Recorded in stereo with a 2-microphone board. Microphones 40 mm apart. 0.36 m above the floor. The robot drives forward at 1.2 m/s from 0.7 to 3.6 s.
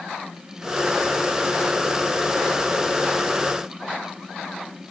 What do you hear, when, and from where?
Only background noise.